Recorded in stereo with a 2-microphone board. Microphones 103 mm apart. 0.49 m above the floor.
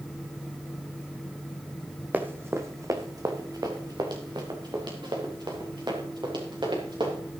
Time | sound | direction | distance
2.1 | running footsteps | 15° right (ahead or behind) | 1.3 m